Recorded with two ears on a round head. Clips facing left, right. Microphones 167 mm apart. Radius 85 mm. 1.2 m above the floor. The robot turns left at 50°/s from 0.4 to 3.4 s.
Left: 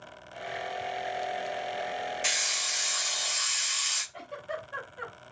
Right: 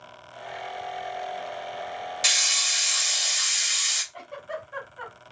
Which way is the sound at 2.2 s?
100° right.